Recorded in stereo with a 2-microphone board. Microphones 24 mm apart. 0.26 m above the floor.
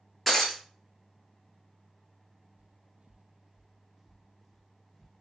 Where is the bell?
I don't hear a bell.